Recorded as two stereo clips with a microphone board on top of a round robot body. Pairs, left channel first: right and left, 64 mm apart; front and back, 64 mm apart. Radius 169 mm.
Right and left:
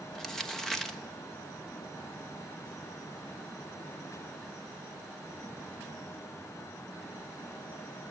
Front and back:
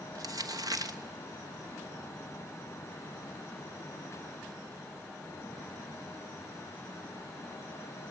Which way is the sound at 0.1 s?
170° right.